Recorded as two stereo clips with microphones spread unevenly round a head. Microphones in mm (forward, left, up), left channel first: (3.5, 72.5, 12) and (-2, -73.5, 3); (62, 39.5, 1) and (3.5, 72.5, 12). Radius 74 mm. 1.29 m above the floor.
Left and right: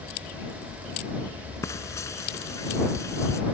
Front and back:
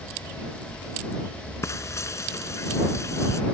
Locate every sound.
1.6 s frying: 15° left